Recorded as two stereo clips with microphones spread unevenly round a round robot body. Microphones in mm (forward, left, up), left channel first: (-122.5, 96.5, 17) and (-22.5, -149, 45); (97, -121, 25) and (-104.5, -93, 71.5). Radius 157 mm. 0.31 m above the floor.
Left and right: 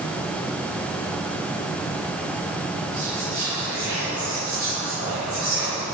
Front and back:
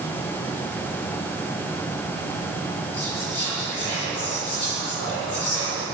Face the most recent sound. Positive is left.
turn(degrees=15)